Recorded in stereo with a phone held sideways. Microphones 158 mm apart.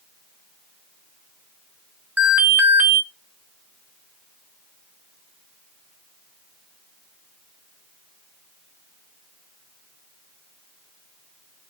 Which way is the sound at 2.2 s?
10° right (ahead or behind).